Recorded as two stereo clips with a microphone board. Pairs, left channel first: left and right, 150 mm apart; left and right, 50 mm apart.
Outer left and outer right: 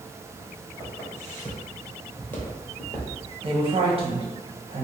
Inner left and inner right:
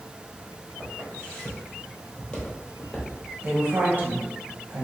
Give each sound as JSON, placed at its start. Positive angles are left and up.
{"t": 0.8, "sound": "footsteps", "side_deg": 15, "distance_m": 1.9}
{"t": 3.4, "sound": "a woman speaking", "side_deg": -40, "distance_m": 1.1}